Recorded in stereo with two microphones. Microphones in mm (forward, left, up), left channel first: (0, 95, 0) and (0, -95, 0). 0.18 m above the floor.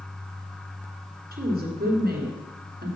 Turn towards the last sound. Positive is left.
turn(degrees=-55)  # may be behind; listen again after turning